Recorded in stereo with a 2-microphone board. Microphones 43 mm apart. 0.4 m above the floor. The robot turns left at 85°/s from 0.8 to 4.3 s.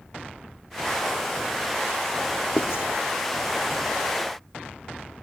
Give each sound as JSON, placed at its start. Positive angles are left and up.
{"t": 2.6, "sound": "writing", "side_deg": 60, "distance_m": 3.5}